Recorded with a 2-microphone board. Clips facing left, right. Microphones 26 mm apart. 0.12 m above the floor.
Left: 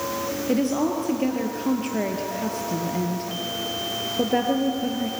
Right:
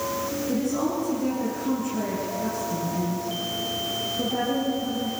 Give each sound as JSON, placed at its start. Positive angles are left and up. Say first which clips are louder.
{"t": 0.5, "sound": "a woman speaking", "louder": "left 4 dB", "side_deg": 60, "distance_m": 3.0}